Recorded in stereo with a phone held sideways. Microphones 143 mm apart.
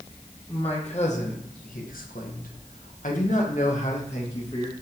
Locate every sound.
0.5 s a man speaking: 40° left (ahead or behind), 1.3 m; by 4.7 s 45° left (ahead or behind), 2 m